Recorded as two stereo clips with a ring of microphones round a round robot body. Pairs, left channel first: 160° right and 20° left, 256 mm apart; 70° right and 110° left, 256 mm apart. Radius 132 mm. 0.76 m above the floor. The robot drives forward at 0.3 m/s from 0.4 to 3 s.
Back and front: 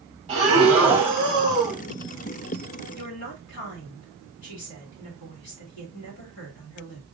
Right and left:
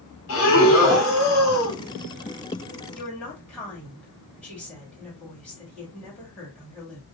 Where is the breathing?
40° right, 1.6 m; by 1.8 s 50° right, 1.4 m.